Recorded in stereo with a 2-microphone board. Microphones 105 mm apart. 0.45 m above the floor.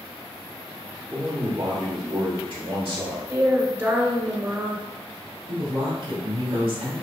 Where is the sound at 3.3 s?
25° right (ahead or behind), 1.4 m.